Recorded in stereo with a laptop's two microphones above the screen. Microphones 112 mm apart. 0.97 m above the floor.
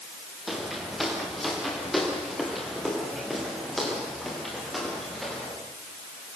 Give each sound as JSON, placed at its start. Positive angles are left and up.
{"t": 0.5, "sound": "footsteps", "side_deg": 0, "distance_m": 5.0}